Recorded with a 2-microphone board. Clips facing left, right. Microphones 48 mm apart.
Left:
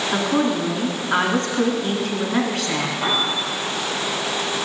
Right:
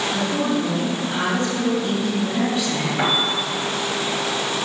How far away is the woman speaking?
About 3.5 m.